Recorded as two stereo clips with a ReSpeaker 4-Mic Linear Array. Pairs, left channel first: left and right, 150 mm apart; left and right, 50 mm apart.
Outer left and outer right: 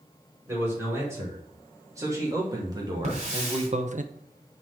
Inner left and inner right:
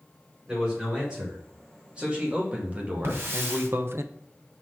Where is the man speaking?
15° right (ahead or behind), 4 m; by 4.0 s 60° right (ahead or behind), 0.7 m.